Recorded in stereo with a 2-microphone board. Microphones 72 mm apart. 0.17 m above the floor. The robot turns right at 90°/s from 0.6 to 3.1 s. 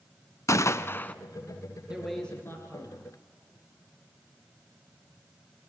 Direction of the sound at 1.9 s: 15° right.